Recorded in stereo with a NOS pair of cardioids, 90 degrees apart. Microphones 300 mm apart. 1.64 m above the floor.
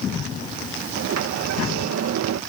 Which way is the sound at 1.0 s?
55° right.